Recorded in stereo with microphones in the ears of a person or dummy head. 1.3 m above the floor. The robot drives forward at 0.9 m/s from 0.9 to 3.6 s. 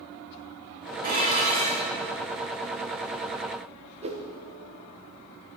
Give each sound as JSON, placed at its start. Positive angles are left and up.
{"t": 1.0, "sound": "dishes clattering", "side_deg": -45, "distance_m": 2.5}
{"t": 4.0, "sound": "a whoosh", "side_deg": -30, "distance_m": 1.1}